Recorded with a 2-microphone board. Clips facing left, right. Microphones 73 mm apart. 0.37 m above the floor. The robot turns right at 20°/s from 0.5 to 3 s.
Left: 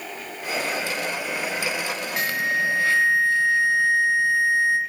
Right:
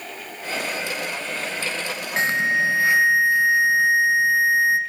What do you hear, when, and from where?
2.2 s an alarm: 30° right (ahead or behind), 2.5 m; by 4.8 s 15° right (ahead or behind), 2.5 m